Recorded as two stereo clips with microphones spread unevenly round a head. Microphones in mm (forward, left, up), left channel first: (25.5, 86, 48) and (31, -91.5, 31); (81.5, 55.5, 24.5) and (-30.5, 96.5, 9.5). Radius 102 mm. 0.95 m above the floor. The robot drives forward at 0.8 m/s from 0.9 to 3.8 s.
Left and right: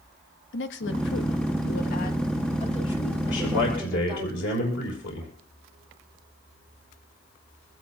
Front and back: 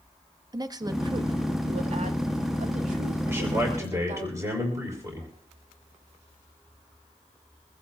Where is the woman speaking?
110° left, 1.2 m; by 4.3 s 160° left, 3 m.